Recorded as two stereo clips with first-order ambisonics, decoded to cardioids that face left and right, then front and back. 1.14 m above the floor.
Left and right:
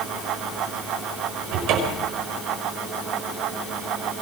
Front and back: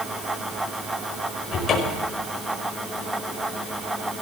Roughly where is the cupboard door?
Ahead right.